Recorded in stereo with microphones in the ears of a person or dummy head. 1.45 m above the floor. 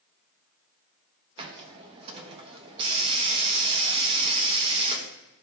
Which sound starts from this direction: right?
A hiss, at 1.4 s.